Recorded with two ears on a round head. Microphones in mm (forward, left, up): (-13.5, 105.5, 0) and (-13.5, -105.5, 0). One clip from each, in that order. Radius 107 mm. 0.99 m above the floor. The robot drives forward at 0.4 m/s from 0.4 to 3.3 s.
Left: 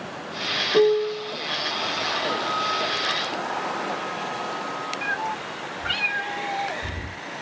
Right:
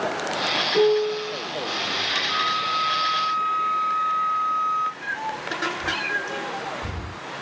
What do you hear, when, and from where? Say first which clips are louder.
0.7 s a piano: left 2 dB; 30° left (ahead or behind), 0.6 m; by 1.3 s 25° left (ahead or behind), 0.7 m
2.3 s a flute: right 2 dB; 35° right (ahead or behind), 0.7 m; by 4.9 s 60° right (ahead or behind), 0.5 m
5.0 s a cat meowing: left 2 dB; 30° left (ahead or behind), 1.4 m